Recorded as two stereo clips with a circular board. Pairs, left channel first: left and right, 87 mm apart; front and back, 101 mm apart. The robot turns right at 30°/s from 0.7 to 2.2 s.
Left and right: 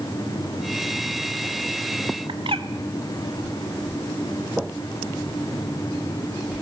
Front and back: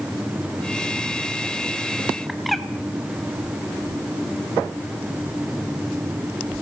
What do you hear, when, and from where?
2.3 s a bird: 90° right, 1.4 m